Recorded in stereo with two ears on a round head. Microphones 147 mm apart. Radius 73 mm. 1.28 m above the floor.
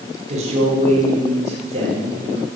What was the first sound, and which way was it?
A man speaking, 45° right (ahead or behind).